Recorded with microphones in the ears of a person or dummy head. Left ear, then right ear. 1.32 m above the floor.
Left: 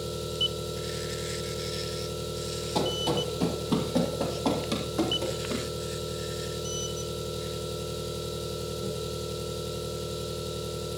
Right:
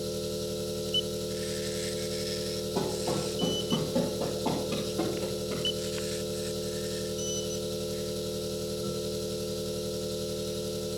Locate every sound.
0.0 s an engine running: 45° left (ahead or behind), 5 m
2.8 s running footsteps: 55° left (ahead or behind), 2.5 m; by 5.7 s 70° left (ahead or behind), 3.5 m